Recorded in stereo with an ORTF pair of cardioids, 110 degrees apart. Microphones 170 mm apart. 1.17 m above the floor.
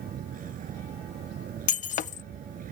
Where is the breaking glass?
50° left.